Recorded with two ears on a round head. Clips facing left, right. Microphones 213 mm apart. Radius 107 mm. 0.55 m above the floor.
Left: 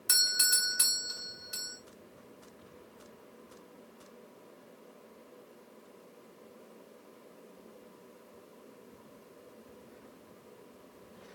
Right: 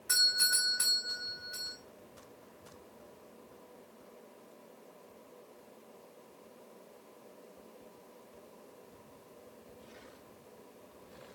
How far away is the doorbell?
About 2.5 m.